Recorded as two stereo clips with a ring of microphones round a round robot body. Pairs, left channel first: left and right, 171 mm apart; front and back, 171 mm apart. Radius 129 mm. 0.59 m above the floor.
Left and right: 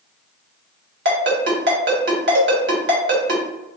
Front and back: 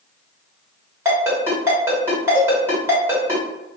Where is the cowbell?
100° right, 0.8 m.